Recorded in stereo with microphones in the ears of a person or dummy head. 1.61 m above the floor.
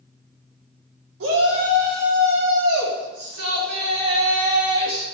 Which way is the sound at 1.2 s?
85° right.